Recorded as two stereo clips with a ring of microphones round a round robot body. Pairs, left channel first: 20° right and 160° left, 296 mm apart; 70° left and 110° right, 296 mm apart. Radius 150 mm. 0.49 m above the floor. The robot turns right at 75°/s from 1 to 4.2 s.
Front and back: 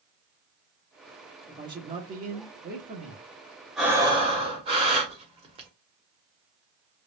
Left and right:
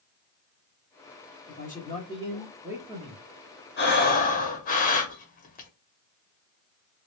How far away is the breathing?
About 0.9 m.